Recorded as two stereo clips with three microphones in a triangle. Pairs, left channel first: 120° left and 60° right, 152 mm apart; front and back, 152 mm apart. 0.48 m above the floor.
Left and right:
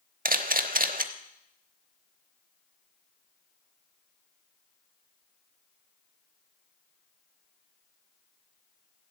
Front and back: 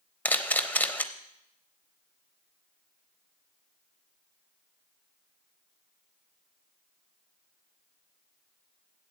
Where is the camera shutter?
80° right, 0.7 m.